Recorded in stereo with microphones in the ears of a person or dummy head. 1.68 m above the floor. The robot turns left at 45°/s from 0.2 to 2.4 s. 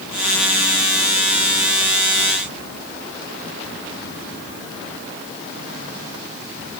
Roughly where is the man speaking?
I don't hear a man speaking.